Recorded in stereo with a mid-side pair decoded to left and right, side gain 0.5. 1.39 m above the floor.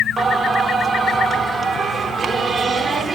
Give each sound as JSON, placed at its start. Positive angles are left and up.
{"t": 0.2, "sound": "singing", "azimuth_deg": -25, "distance_m": 3.0}